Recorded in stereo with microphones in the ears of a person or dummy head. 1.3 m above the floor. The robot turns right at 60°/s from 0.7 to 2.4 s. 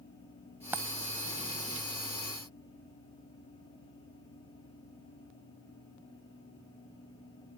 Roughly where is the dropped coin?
Centre.